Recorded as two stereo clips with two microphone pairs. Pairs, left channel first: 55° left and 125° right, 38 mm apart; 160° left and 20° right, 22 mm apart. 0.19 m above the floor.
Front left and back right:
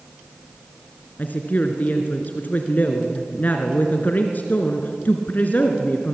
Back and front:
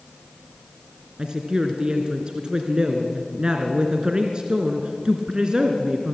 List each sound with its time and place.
1.2 s a woman speaking: 25° left, 2.5 m